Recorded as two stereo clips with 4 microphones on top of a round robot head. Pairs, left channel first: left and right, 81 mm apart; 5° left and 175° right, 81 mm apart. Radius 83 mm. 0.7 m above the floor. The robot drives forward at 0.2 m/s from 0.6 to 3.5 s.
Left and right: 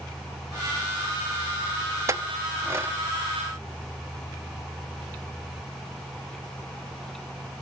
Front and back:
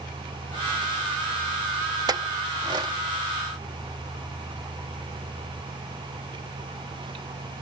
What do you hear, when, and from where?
2.1 s a clink: 140° right, 0.6 m; by 3.0 s 150° right, 0.7 m